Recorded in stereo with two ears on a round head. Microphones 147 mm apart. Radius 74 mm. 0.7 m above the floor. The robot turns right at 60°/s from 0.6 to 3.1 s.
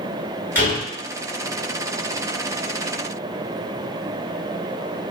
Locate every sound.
0.6 s a door slam: 10° left (ahead or behind), 1.4 m; by 0.8 s 25° left (ahead or behind), 1.4 m